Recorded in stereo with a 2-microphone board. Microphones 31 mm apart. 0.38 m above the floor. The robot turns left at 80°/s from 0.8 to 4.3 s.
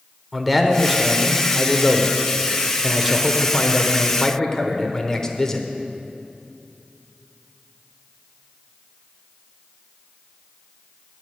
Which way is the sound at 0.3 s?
5° left (ahead or behind).